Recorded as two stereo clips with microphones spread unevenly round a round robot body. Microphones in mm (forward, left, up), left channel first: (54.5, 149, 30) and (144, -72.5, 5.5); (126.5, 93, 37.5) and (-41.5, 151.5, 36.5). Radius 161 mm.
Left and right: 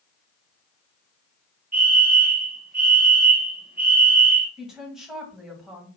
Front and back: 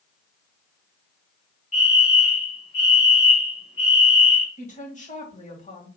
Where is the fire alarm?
55° right, 2.5 m.